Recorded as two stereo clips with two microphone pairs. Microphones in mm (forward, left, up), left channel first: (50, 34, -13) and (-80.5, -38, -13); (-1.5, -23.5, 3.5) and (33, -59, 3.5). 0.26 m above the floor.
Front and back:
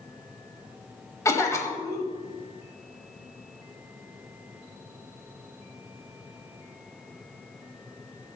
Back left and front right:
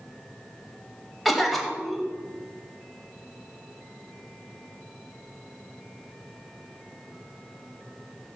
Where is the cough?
35° left, 1.0 m.